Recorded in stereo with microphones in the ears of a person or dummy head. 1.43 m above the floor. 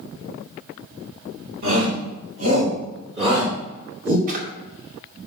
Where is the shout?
50° right (ahead or behind), 5 m; by 4.2 s 30° right (ahead or behind), 4.5 m.